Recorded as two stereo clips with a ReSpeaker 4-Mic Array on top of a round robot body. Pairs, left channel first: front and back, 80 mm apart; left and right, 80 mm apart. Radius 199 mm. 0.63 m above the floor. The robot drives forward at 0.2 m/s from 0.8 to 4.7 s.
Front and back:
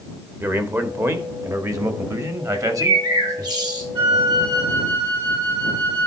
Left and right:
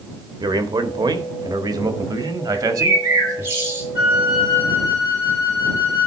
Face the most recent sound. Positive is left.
turn(degrees=-155)